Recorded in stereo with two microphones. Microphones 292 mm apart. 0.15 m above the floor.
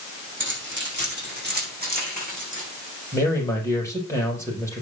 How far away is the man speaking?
About 5 m.